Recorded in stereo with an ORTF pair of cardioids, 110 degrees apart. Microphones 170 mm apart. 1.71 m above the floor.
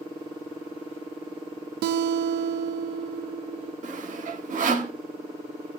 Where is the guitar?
70° right, 0.8 m.